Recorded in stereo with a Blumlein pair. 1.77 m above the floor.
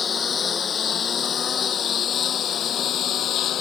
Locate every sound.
0.0 s a lawn mower: 20° left; by 3.6 s 30° left